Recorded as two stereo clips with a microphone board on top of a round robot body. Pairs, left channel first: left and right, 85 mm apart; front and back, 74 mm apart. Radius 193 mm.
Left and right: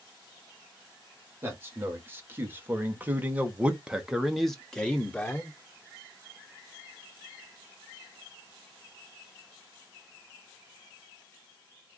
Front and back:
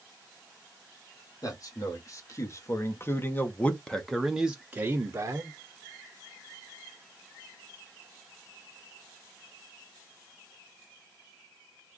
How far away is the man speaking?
About 2 m.